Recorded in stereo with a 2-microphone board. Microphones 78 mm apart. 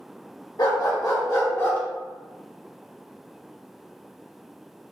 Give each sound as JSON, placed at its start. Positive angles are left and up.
{"t": 0.6, "sound": "a dog barking", "side_deg": 55, "distance_m": 1.1}